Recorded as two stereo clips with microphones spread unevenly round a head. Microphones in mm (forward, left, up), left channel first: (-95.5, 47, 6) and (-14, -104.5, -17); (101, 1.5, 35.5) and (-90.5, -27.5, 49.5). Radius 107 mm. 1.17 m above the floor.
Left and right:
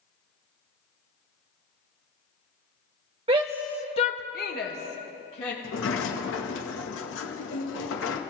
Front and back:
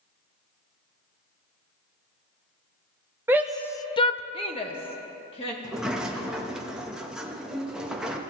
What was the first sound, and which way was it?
A shout, 95° right.